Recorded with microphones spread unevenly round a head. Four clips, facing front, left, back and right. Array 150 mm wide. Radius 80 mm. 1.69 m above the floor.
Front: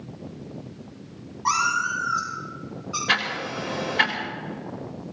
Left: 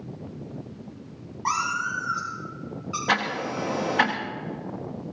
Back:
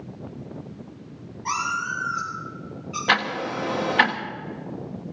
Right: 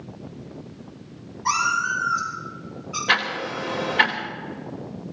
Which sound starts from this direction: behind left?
Ticking, at 3.1 s.